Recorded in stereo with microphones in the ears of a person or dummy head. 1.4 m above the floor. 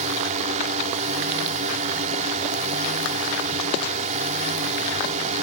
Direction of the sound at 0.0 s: 30° right (ahead or behind).